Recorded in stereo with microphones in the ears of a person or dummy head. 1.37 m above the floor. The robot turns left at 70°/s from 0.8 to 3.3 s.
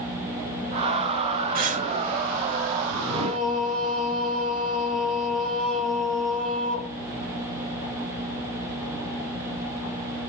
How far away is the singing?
About 1.0 m.